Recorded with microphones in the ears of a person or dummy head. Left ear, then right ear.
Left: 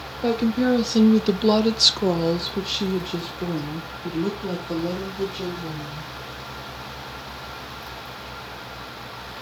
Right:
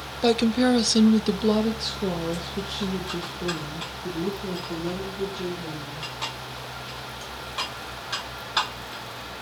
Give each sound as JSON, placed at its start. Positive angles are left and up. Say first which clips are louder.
{"t": 0.2, "sound": "a woman speaking", "louder": "right 1 dB", "side_deg": -35, "distance_m": 0.9}